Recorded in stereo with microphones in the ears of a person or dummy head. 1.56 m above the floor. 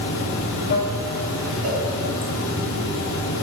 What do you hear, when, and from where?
0.0 s running water: 65° left (ahead or behind), 1.1 m
1.6 s a cowbell: 80° right, 2.5 m